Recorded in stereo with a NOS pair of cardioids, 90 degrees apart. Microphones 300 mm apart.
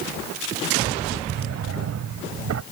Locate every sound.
1.3 s a drawer: 60° right